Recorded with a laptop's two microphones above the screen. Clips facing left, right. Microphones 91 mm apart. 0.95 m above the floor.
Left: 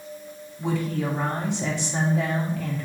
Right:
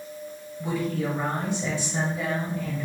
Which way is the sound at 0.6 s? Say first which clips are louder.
Left 1 dB; 75° left (ahead or behind).